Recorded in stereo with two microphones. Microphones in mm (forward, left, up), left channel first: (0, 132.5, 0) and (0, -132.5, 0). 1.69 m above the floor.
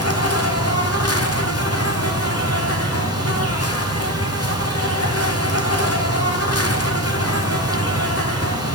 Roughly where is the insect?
Left.